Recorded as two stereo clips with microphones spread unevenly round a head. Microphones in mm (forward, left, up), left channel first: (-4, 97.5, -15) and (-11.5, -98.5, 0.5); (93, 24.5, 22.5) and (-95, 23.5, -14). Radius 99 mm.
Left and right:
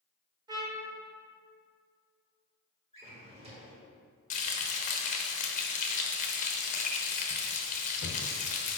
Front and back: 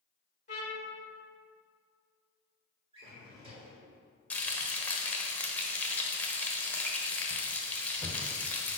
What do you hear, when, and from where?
0.5 s a trumpet: 30° right, 1.0 m
2.9 s a drawer: 120° right, 1.5 m
4.3 s frying: 60° left, 0.8 m